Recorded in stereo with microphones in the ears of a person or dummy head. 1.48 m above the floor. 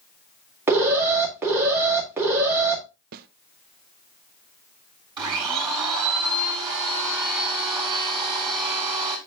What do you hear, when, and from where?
0.7 s an alarm: 15° right (ahead or behind), 2 m
3.1 s a snare drum: 50° right (ahead or behind), 0.5 m
5.2 s a blender: 25° right (ahead or behind), 3.5 m